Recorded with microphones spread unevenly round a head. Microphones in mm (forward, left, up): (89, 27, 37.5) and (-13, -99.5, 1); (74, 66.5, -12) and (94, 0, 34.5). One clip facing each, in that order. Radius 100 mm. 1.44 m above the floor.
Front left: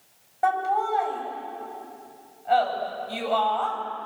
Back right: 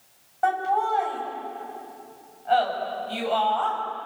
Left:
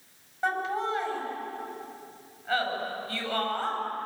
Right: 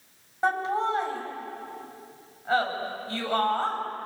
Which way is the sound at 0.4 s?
25° right.